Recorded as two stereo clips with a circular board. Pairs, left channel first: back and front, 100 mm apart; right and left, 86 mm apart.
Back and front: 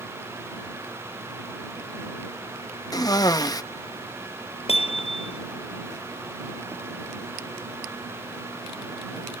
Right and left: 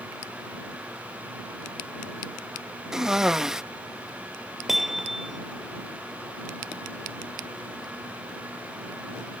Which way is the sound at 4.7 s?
175° left.